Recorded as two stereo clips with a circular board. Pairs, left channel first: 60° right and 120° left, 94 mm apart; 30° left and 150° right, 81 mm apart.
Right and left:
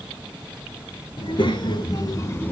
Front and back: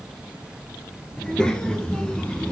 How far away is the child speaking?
About 1.7 m.